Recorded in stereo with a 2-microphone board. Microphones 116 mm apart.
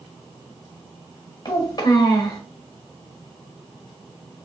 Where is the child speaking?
40° left (ahead or behind), 1.1 m.